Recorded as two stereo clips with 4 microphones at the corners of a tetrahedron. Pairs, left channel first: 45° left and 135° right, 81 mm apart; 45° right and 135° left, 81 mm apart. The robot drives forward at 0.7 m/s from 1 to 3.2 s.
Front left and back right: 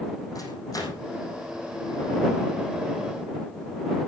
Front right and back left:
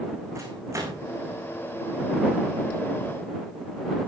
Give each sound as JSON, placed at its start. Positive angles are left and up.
{"t": 0.3, "sound": "a microwave", "azimuth_deg": 85, "distance_m": 5.0}